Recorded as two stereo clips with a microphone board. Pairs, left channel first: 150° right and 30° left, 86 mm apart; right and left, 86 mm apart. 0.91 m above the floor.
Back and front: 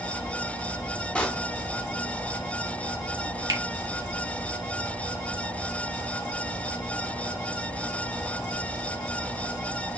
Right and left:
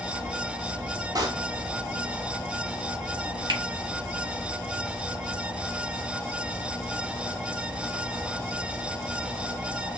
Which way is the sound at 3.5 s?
65° left.